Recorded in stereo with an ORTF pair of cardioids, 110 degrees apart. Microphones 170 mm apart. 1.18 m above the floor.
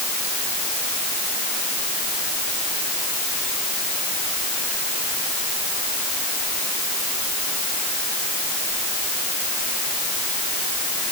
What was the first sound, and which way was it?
Only background noise.